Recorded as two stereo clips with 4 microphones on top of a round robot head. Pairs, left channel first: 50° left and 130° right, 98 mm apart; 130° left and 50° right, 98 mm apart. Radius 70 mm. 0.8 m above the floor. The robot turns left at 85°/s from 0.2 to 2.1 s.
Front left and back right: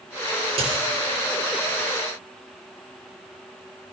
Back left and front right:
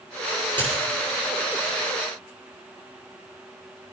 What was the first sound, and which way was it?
A dropped coin, 155° right.